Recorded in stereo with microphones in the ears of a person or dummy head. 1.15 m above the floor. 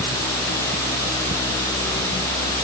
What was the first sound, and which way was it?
Only background noise.